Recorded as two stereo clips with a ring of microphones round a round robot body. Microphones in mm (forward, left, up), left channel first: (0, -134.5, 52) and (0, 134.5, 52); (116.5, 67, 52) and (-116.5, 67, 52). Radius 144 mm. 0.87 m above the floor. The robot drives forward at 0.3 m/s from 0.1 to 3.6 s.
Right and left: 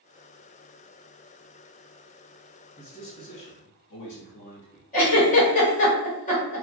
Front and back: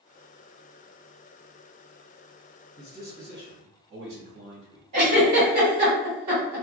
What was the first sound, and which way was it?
A man speaking, 125° right.